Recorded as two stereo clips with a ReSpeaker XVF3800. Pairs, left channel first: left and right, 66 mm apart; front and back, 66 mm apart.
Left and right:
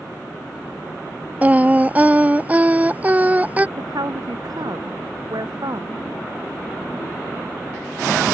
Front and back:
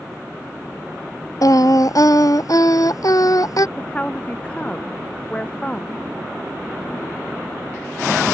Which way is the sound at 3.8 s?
75° right.